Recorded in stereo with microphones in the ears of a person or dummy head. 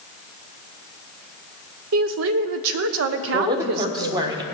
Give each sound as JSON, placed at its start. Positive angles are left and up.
{"t": 1.9, "sound": "a woman speaking", "side_deg": -70, "distance_m": 0.8}
{"t": 3.3, "sound": "a woman speaking", "side_deg": -20, "distance_m": 1.3}